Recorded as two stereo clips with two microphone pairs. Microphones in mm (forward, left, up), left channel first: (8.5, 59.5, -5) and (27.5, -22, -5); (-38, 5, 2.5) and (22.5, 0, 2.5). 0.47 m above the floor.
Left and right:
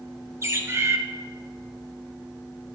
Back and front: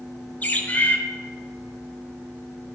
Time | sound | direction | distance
0.4 | a bird | 130° right | 0.6 m